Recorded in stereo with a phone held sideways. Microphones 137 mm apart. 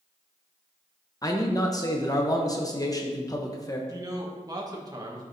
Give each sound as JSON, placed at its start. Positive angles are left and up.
{"t": 1.2, "sound": "a man speaking", "side_deg": 25, "distance_m": 0.9}
{"t": 3.9, "sound": "a man speaking", "side_deg": -25, "distance_m": 1.2}